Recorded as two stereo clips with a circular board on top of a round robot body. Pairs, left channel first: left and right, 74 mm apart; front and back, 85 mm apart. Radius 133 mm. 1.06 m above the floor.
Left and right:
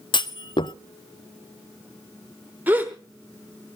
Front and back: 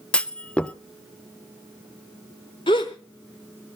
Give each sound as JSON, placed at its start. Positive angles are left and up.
{"t": 0.1, "sound": "a clunk", "azimuth_deg": 80, "distance_m": 0.6}
{"t": 2.7, "sound": "a gasp", "azimuth_deg": -30, "distance_m": 0.8}